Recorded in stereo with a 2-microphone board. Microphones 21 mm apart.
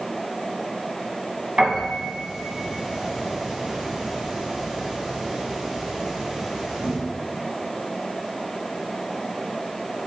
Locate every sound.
1.6 s a piano: 55° right (ahead or behind), 2 m